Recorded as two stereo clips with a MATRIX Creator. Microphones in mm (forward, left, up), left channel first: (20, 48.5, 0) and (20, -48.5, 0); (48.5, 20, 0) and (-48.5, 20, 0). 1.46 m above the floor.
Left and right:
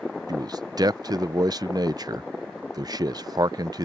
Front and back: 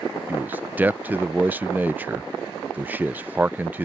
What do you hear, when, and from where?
0.3 s a man speaking: 115° right